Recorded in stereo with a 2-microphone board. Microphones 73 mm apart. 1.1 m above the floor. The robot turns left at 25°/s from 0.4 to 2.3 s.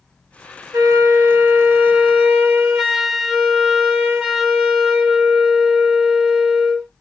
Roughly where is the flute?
Behind right.